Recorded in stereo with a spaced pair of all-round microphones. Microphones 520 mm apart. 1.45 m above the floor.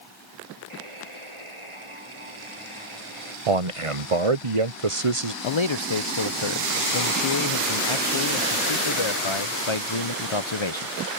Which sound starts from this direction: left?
A man speaking, at 5.4 s.